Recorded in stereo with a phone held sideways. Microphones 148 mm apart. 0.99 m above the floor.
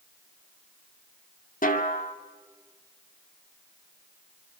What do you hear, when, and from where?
1.6 s a snare drum: 70° left (ahead or behind), 2 m